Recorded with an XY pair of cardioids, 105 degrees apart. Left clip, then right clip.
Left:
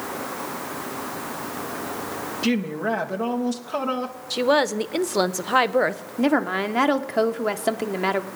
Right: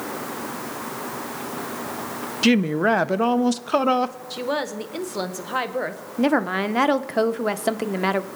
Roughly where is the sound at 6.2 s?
Ahead.